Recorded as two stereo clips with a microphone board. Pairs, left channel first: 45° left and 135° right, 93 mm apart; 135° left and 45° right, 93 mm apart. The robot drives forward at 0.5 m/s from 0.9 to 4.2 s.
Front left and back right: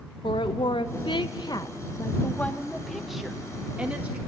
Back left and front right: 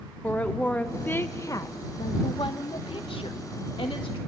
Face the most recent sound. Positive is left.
turn(degrees=150)